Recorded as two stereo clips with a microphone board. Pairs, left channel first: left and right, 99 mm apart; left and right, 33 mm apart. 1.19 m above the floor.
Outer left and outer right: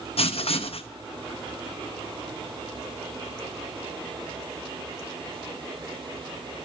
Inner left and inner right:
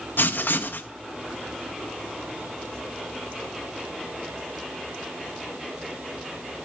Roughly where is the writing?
Left.